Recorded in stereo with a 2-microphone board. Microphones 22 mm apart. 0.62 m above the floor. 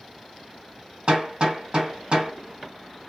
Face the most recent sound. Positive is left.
turn(degrees=-45)  # may be behind; listen again after turning